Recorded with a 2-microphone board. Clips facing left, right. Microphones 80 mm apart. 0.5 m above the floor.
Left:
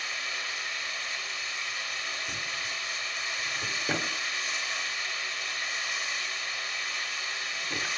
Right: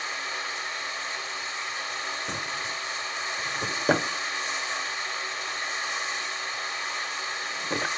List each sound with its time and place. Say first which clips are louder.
0.0 s running water: right 3 dB; 30° right (ahead or behind), 0.9 m
2.3 s a drawer: right 4 dB; 50° right (ahead or behind), 0.7 m